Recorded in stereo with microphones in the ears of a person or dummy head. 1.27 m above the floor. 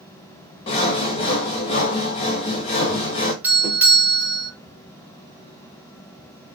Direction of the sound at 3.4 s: 10° right (ahead or behind).